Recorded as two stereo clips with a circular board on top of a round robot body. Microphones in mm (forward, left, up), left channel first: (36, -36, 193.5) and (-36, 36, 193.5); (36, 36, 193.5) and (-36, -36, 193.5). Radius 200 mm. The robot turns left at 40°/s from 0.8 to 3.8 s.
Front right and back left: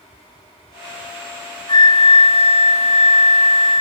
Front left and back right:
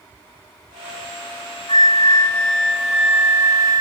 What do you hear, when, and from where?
1.7 s a flute: straight ahead, 0.9 m; by 3.8 s 80° right, 0.9 m